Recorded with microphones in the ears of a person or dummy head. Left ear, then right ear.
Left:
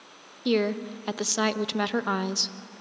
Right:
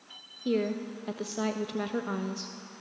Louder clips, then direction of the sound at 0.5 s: Left 5 dB; 40° left (ahead or behind).